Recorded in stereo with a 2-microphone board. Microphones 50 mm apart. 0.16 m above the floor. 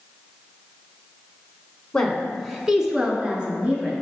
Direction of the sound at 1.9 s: 10° left (ahead or behind).